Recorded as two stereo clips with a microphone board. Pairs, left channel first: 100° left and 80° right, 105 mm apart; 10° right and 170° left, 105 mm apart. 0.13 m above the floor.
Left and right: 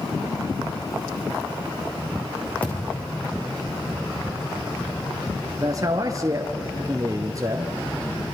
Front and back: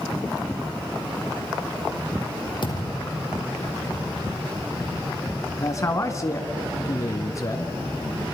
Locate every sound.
2.6 s a thud: 25° left, 3.5 m
5.6 s a man speaking: 50° right, 1.5 m